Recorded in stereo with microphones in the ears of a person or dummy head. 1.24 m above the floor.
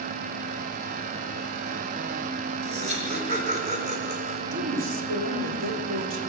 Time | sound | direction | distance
2.6 | laughter | 40° right (ahead or behind) | 4.5 m
4.5 | a woman speaking | 80° right | 3.5 m